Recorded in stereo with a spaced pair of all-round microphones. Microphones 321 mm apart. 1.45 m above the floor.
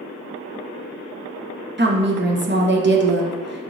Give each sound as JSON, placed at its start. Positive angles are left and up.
{"t": 1.8, "sound": "a woman speaking", "side_deg": -35, "distance_m": 0.7}